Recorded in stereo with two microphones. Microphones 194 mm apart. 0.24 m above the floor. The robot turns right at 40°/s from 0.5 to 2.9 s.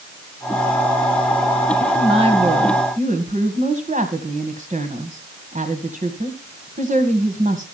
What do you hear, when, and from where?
1.8 s a woman speaking: 150° right, 1.9 m; by 7.7 s 105° right, 1.9 m